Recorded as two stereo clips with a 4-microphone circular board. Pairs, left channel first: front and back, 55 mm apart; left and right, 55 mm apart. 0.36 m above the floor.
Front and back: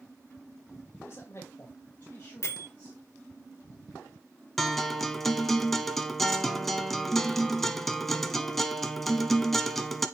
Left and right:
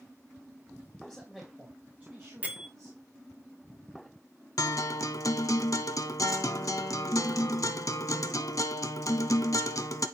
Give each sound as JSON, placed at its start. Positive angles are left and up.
{"t": 1.0, "sound": "a man speaking", "azimuth_deg": 5, "distance_m": 1.9}
{"t": 2.4, "sound": "a bell", "azimuth_deg": -35, "distance_m": 1.5}
{"t": 4.6, "sound": "a guitar", "azimuth_deg": 85, "distance_m": 0.7}